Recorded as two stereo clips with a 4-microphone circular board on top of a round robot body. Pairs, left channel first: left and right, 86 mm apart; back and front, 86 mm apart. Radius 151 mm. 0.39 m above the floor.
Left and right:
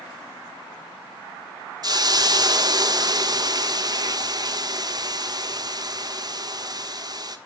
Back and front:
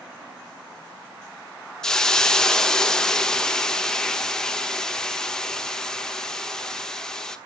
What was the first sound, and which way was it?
A hiss, 100° right.